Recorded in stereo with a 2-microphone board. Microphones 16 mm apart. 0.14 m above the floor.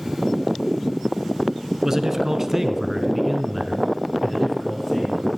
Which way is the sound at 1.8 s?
20° right (ahead or behind).